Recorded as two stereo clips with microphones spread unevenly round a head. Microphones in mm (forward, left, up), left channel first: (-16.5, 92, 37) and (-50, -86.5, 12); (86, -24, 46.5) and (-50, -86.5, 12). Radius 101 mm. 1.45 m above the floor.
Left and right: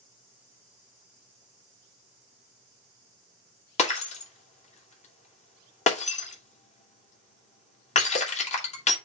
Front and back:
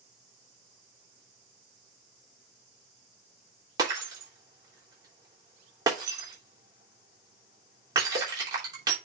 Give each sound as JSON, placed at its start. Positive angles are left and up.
{"t": 3.8, "sound": "breaking glass", "azimuth_deg": 130, "distance_m": 3.0}